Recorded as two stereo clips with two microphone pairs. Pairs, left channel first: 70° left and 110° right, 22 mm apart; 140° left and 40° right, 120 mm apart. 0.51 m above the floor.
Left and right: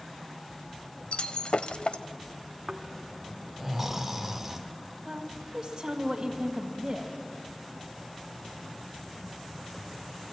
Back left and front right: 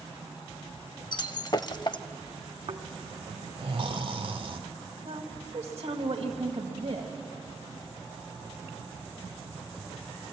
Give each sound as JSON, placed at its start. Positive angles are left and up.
{"t": 1.1, "sound": "breaking glass", "azimuth_deg": 90, "distance_m": 0.5}
{"t": 2.7, "sound": "snoring", "azimuth_deg": -35, "distance_m": 1.2}
{"t": 5.0, "sound": "a woman speaking", "azimuth_deg": -55, "distance_m": 2.0}